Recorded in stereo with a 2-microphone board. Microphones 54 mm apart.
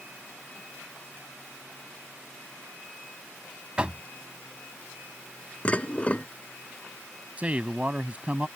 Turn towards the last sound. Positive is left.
turn(degrees=-30)  # may be behind; listen again after turning